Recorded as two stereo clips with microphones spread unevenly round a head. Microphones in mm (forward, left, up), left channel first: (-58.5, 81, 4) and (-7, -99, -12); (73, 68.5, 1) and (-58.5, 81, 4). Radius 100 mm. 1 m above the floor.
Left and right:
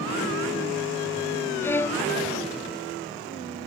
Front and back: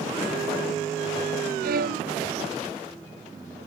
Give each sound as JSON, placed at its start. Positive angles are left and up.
{"t": 1.6, "sound": "a violin", "azimuth_deg": -175}